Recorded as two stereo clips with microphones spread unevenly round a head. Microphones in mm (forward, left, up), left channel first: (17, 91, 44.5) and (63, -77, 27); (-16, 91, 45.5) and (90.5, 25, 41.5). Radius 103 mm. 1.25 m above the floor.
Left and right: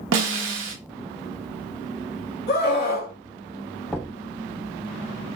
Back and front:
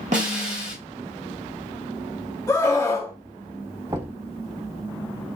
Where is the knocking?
20° left, 2.5 m.